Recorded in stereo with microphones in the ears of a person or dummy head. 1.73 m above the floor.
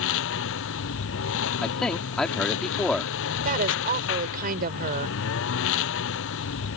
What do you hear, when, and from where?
0.0 s a lawn mower: 75° left (ahead or behind)
1.6 s a man speaking: 10° left (ahead or behind)
3.5 s a woman speaking: 50° right (ahead or behind)